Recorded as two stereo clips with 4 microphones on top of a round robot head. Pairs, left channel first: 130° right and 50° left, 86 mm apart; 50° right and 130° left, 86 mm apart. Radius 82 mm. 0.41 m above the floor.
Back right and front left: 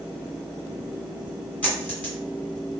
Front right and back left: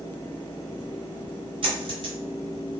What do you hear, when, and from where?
1.6 s a dropped coin: 155° left, 2 m